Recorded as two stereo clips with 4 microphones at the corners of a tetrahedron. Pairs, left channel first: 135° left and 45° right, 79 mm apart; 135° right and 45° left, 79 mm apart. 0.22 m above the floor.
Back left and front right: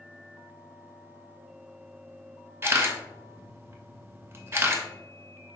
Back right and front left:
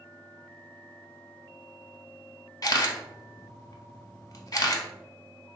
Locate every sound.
2.6 s a camera shutter: 100° right, 0.6 m